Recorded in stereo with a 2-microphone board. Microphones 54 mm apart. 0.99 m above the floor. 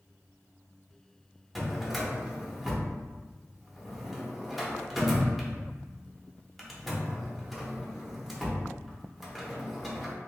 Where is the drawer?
Centre (ahead or behind), 0.6 m.